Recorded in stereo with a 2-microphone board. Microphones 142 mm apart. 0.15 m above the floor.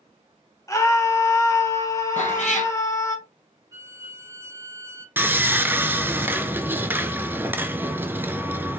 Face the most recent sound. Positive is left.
turn(degrees=-15)  # may be behind; listen again after turning